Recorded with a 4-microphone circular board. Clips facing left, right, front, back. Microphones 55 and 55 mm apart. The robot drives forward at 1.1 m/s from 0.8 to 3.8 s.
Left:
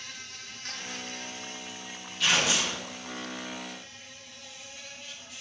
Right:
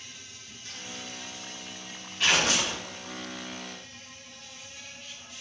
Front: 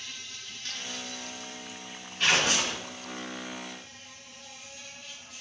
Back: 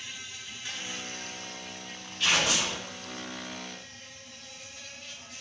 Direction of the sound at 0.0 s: 105° left.